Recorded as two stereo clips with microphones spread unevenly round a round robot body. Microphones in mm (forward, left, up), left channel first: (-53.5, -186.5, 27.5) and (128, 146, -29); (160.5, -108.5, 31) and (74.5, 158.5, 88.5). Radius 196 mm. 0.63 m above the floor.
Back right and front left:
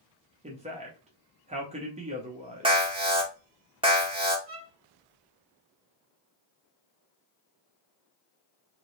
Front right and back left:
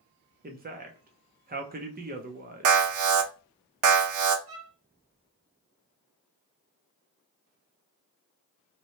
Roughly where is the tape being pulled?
I don't hear tape being pulled.